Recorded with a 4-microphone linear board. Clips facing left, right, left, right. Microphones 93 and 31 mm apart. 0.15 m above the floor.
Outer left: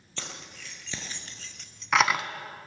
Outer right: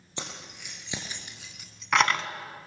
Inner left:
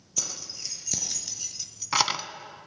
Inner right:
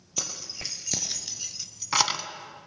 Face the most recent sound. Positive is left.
turn(degrees=15)  # may be behind; listen again after turning